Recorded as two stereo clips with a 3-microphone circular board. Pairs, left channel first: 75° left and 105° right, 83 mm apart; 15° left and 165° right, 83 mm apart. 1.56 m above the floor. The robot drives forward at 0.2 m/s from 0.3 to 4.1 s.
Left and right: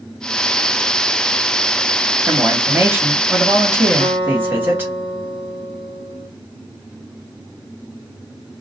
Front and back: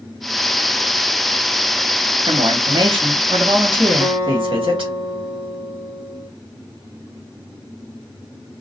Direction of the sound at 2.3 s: 170° right.